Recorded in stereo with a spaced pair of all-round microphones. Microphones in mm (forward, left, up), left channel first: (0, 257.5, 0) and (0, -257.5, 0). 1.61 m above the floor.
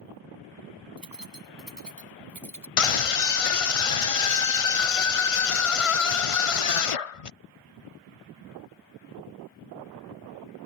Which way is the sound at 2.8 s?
80° left.